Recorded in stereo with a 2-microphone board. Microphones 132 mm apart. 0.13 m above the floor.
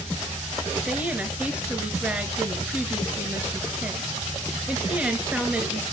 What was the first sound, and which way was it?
A woman speaking, 10° right (ahead or behind).